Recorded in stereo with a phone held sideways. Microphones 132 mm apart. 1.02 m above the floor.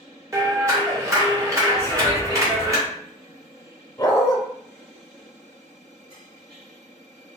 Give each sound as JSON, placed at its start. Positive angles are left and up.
{"t": 0.3, "sound": "a clap", "side_deg": -25, "distance_m": 1.3}
{"t": 1.8, "sound": "writing", "side_deg": 20, "distance_m": 0.5}
{"t": 4.0, "sound": "a dog barking", "side_deg": 30, "distance_m": 0.7}